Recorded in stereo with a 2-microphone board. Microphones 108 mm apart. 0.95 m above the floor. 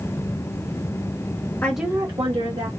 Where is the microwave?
I don't hear a microwave.